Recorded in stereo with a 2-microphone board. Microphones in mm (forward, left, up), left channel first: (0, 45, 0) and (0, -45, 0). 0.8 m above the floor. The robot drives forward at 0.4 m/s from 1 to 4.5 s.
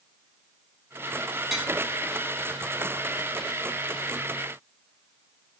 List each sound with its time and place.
1.5 s tapping: centre (ahead or behind), 6.5 m